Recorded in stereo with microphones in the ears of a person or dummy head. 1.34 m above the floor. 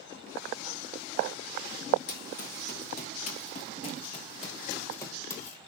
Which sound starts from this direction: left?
Running footsteps, at 2.1 s.